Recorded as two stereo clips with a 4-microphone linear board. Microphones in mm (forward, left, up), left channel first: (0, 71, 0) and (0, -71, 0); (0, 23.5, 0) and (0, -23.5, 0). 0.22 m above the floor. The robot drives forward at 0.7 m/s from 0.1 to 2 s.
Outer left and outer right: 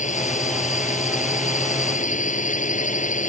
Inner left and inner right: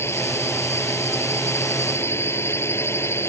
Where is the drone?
60° left (ahead or behind).